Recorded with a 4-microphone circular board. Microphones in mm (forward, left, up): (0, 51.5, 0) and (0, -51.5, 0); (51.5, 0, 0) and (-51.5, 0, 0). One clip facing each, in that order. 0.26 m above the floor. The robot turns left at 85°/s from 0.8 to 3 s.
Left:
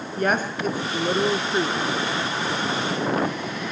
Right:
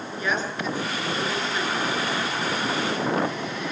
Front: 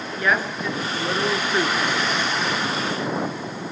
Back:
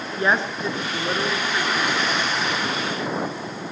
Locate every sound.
0.2 s a woman speaking: 120° left, 3 m; by 1.8 s 35° left, 3 m